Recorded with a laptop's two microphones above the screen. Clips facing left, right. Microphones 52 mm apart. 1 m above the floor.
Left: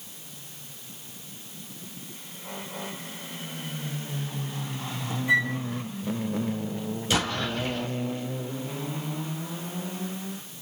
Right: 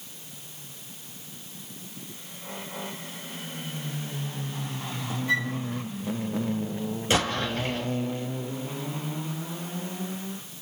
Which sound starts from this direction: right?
An explosion, at 7.1 s.